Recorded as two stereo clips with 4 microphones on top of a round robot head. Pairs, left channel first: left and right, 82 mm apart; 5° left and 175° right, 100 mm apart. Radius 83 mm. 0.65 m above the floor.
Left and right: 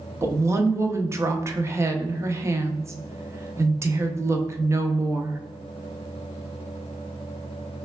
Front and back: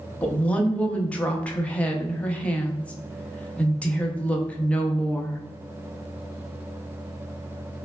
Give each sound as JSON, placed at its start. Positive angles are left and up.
{"t": 0.2, "sound": "a woman speaking", "azimuth_deg": -65, "distance_m": 0.6}